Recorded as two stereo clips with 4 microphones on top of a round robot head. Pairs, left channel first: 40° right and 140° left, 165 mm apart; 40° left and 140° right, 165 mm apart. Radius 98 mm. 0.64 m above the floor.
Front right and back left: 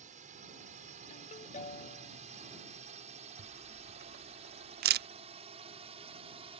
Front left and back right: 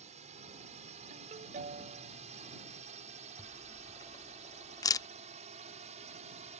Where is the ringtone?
90° right.